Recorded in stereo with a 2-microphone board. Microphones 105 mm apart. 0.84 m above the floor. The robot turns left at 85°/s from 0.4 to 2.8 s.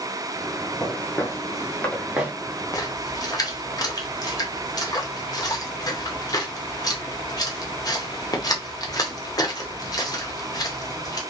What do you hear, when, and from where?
0.8 s footsteps: 5° right (ahead or behind), 1.2 m; by 2.3 s 20° right (ahead or behind), 0.8 m
2.7 s a splash: 35° left (ahead or behind), 0.6 m; by 11.2 s 40° left (ahead or behind), 0.6 m